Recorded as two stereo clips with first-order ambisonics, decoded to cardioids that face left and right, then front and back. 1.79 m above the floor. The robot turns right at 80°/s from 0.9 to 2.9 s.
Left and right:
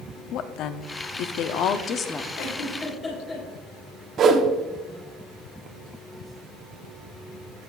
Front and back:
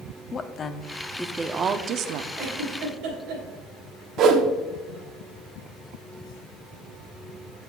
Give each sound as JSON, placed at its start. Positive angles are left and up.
{"t": 0.3, "sound": "a woman speaking", "azimuth_deg": 60, "distance_m": 0.6}
{"t": 2.4, "sound": "a giggle", "azimuth_deg": 120, "distance_m": 3.0}
{"t": 4.2, "sound": "a whoosh", "azimuth_deg": -140, "distance_m": 0.9}